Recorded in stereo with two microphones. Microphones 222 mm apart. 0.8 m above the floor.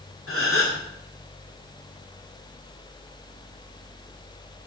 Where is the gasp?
75° left (ahead or behind), 2.5 m.